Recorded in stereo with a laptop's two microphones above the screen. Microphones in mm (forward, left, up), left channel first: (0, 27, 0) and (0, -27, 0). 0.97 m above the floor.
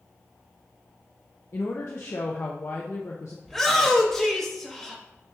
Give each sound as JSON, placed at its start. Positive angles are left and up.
{"t": 1.5, "sound": "a woman speaking", "side_deg": 60, "distance_m": 0.6}
{"t": 3.5, "sound": "a shout", "side_deg": 5, "distance_m": 0.8}